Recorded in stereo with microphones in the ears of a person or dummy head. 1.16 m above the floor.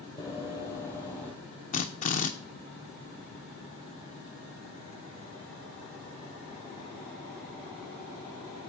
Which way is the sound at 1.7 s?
35° left (ahead or behind).